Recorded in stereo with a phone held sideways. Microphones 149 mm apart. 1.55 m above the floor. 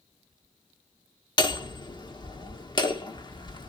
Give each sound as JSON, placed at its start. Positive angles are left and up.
{"t": 1.4, "sound": "hammering", "side_deg": 30, "distance_m": 1.2}